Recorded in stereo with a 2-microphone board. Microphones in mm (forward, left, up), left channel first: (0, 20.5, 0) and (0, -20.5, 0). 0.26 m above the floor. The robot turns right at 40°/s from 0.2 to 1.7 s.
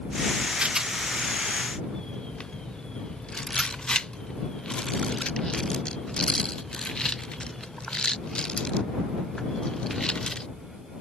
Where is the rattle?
20° right (ahead or behind); by 10.5 s 20° left (ahead or behind).